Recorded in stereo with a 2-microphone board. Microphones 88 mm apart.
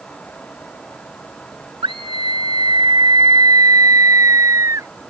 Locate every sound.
1.8 s a scream: 65° right (ahead or behind); by 4.9 s 35° right (ahead or behind)